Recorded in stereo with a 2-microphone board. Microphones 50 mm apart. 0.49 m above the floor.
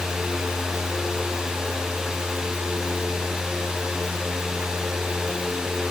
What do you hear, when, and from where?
Only background noise.